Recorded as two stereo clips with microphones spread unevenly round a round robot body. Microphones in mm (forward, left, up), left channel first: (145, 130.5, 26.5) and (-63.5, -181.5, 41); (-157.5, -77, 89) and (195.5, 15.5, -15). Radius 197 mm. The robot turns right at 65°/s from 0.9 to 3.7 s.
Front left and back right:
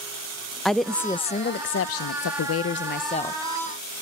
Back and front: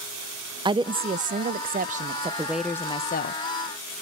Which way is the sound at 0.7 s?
30° right.